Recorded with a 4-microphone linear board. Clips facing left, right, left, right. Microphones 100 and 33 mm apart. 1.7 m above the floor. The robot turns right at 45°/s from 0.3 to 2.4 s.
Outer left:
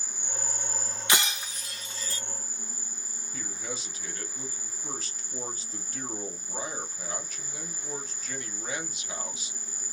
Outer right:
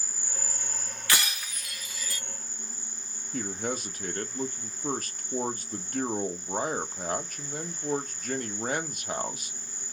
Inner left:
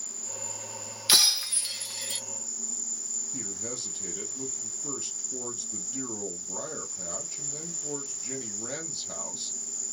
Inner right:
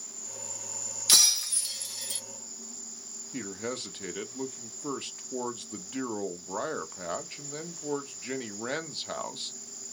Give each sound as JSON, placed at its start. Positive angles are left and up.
{"t": 0.0, "sound": "an insect", "azimuth_deg": 115, "distance_m": 0.7}
{"t": 1.1, "sound": "breaking glass", "side_deg": 20, "distance_m": 0.8}
{"t": 3.3, "sound": "a man speaking", "side_deg": -50, "distance_m": 0.7}